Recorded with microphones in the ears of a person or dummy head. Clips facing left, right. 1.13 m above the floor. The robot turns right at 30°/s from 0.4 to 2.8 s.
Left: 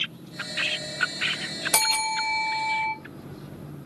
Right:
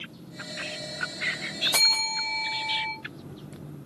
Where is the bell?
145° left, 0.8 m; by 2.9 s 175° left, 0.8 m.